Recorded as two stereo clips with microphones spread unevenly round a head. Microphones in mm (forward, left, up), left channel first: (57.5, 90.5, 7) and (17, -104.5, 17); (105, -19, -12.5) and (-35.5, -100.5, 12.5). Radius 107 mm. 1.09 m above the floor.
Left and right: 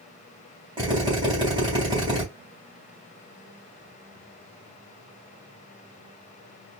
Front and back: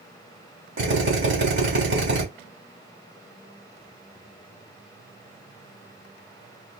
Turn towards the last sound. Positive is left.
turn(degrees=-175)